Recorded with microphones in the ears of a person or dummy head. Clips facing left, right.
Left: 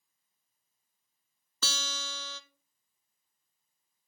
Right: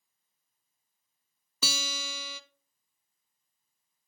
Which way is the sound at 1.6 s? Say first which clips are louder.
Right 3 dB; 15° right (ahead or behind).